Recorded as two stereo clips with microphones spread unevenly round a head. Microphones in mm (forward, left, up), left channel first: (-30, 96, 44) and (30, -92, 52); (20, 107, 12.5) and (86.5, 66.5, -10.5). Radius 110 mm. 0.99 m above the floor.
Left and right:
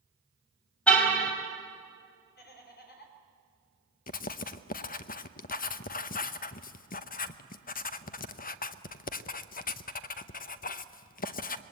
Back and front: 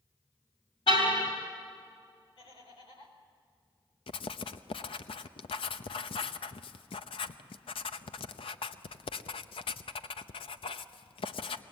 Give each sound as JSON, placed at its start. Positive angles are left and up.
{"t": 0.9, "sound": "a car horn", "azimuth_deg": -165, "distance_m": 4.0}
{"t": 2.4, "sound": "laughter", "azimuth_deg": 150, "distance_m": 5.0}
{"t": 4.1, "sound": "writing", "azimuth_deg": 150, "distance_m": 0.8}